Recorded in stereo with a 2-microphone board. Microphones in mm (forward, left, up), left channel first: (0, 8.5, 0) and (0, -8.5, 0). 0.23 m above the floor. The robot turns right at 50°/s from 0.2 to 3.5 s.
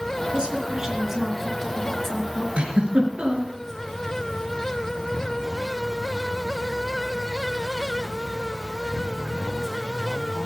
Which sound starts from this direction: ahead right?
A woman speaking, at 0.3 s.